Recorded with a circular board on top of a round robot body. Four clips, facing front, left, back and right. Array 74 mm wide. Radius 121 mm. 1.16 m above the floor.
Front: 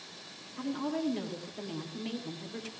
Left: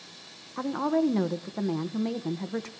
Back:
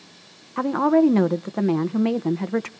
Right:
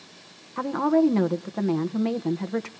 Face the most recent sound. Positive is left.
turn(degrees=-170)